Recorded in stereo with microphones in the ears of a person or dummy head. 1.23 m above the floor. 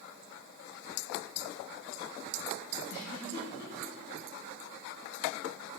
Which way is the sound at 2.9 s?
65° left (ahead or behind).